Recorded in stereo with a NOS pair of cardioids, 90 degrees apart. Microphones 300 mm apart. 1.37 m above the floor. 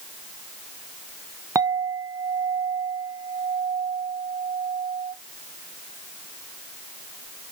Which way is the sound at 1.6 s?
10° right.